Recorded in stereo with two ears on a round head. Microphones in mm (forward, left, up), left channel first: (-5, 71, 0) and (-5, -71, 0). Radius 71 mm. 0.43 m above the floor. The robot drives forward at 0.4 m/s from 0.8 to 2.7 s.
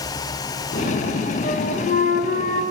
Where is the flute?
50° left (ahead or behind), 3 m; by 2.6 s 55° left (ahead or behind), 3 m.